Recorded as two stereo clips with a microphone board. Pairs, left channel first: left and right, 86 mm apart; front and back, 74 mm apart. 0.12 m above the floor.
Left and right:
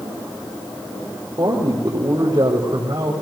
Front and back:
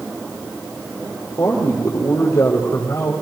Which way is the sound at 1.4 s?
50° right.